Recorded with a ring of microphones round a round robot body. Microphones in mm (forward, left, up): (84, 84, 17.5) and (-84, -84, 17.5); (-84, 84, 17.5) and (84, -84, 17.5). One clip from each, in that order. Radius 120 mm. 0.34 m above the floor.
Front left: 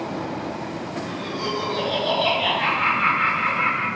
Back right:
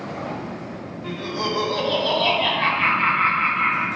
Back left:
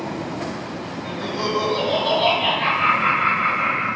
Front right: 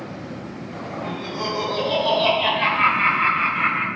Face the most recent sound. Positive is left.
turn(degrees=-40)